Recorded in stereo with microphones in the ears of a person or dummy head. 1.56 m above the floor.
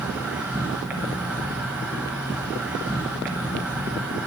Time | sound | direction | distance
0.0 | an insect | 10° right (ahead or behind) | 1.5 m